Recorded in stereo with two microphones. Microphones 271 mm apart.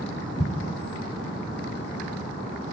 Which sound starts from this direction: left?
An explosion, at 0.4 s.